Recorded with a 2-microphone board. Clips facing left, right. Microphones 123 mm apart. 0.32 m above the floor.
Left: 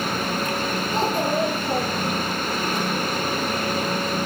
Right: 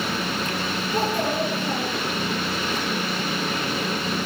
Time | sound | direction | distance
0.9 | a child speaking | 25° left (ahead or behind) | 5.5 m